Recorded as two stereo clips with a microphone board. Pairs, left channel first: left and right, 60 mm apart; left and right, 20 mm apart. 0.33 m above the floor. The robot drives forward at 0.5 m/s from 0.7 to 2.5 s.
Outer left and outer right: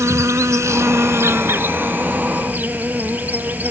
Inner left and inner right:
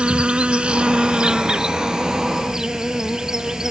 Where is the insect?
60° right (ahead or behind); by 3.7 s 30° right (ahead or behind).